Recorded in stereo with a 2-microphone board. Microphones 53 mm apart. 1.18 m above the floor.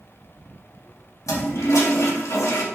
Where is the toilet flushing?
75° left (ahead or behind), 1.7 m.